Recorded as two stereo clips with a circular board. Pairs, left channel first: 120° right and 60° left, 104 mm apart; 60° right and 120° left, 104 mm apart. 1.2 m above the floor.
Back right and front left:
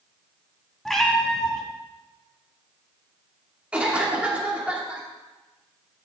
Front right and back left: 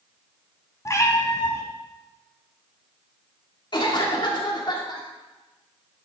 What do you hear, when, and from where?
0.8 s a cat meowing: 35° right, 1.2 m
3.7 s a cough: 15° right, 2.5 m